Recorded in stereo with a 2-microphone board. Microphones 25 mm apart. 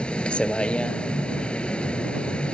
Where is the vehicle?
45° left (ahead or behind).